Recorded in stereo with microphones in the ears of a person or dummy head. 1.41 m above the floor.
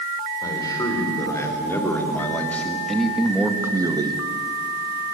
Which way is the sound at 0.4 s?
25° left (ahead or behind).